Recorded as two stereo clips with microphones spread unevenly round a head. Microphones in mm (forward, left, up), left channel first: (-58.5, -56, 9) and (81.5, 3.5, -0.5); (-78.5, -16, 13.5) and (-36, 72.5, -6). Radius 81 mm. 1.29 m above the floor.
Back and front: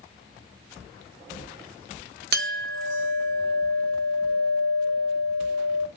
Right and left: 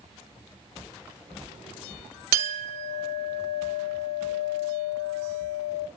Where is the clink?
55° left, 1.1 m.